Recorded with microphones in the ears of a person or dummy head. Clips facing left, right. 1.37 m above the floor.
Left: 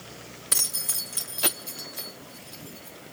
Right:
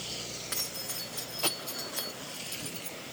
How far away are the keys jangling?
About 0.8 m.